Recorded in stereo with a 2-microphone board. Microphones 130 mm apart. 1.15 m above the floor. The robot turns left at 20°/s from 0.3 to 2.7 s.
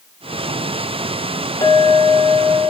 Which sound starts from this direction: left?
A clink, at 1.6 s.